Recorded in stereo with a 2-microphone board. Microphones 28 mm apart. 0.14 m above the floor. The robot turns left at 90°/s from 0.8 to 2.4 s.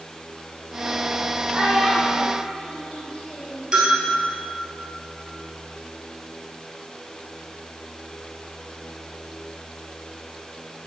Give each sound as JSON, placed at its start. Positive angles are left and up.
{"t": 1.5, "sound": "a child speaking", "side_deg": -30, "distance_m": 3.0}
{"t": 3.7, "sound": "a bell", "side_deg": -30, "distance_m": 3.0}